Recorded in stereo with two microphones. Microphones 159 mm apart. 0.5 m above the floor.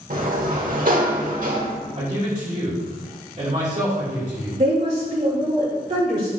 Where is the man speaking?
35° right (ahead or behind), 2.5 m.